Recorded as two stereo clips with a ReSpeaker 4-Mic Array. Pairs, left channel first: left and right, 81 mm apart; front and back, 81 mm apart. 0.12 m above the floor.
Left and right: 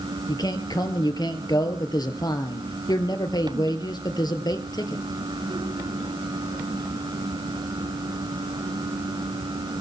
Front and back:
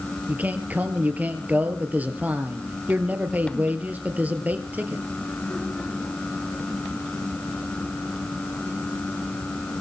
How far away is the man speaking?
About 2 m.